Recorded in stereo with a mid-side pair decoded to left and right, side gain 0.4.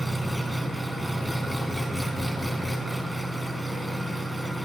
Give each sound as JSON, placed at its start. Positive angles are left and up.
{"t": 0.0, "sound": "an engine running", "azimuth_deg": -5, "distance_m": 5.5}